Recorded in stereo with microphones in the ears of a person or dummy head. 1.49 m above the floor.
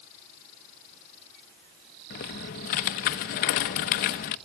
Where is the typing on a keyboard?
50° left (ahead or behind), 0.9 m.